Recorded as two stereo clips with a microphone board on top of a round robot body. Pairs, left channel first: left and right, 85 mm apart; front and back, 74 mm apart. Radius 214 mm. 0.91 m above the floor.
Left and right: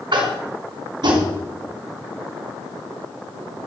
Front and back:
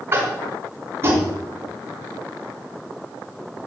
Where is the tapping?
125° right, 3.5 m.